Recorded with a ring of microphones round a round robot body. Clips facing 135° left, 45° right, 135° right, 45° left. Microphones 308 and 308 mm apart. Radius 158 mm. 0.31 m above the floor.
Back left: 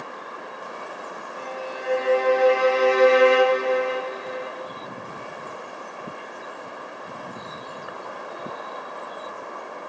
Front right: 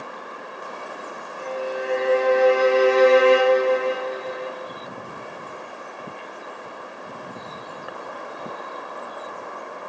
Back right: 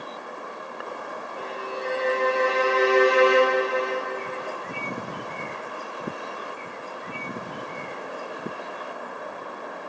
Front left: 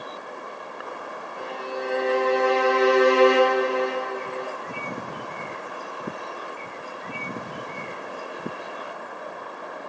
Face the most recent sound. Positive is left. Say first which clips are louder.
# front right 7 dB, front left 2 dB
turn(degrees=180)